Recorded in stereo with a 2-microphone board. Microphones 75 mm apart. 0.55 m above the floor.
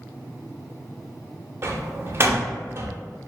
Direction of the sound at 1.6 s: 35° right (ahead or behind).